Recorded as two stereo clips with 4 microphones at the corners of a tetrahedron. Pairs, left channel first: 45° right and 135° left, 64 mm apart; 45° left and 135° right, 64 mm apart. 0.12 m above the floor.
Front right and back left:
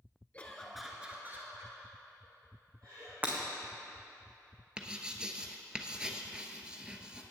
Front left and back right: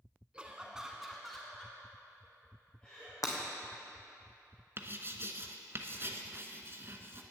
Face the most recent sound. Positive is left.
turn(degrees=-155)